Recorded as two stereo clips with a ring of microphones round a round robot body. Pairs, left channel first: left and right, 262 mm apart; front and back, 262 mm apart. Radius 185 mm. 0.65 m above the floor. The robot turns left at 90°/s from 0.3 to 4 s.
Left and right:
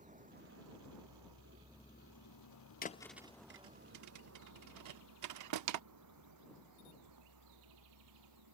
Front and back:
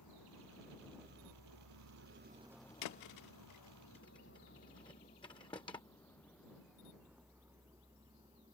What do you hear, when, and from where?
0.0 s a vehicle: 30° right; by 8.6 s 100° right
2.8 s a thud: 30° left; by 5.8 s 80° right